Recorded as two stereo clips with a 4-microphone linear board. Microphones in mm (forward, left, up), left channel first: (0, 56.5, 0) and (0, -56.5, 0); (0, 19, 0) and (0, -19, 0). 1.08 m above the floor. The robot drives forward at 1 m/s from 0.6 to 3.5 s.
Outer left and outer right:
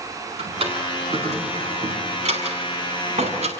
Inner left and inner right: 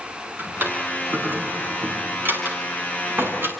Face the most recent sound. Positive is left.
turn(degrees=-85)